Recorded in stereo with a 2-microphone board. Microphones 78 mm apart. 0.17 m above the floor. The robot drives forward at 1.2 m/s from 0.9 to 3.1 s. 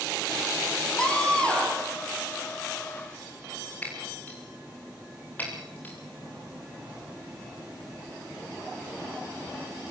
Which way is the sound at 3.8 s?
20° left (ahead or behind).